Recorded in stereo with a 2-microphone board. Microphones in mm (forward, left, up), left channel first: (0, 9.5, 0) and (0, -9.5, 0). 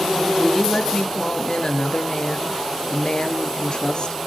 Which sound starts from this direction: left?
A woman speaking, at 0.4 s.